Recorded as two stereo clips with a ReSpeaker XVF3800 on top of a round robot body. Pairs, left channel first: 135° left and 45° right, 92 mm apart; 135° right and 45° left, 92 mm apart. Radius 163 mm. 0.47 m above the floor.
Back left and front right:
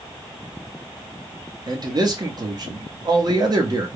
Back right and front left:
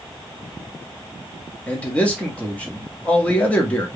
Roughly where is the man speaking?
Ahead right.